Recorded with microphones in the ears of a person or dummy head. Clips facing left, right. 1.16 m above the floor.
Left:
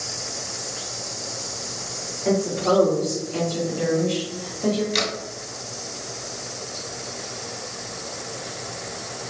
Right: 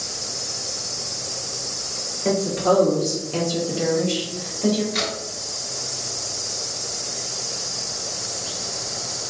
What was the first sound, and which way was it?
A woman speaking, 50° right (ahead or behind).